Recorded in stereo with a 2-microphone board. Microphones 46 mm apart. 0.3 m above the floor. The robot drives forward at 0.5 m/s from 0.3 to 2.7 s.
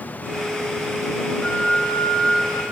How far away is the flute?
About 3 m.